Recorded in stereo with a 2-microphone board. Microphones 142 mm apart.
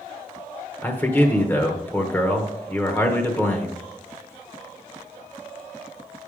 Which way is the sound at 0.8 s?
15° left (ahead or behind).